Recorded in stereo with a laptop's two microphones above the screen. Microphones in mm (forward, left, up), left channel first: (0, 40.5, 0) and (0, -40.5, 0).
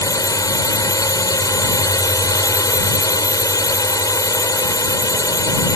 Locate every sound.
0.0 s a drone: 45° left (ahead or behind)